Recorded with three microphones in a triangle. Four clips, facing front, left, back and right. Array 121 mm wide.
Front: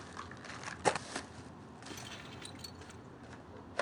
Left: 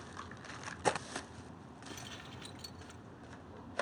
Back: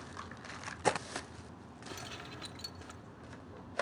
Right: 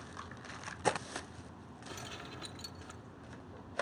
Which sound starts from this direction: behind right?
Keys jangling, at 1.9 s.